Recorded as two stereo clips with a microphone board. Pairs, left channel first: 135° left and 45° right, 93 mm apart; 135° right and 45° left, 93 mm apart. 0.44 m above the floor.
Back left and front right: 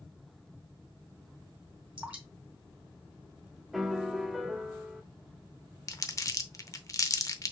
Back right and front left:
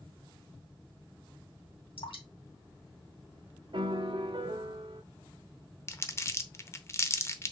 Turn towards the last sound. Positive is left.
turn(degrees=175)